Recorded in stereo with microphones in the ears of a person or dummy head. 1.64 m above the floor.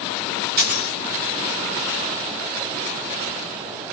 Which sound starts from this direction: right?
A dropped coin, at 0.6 s.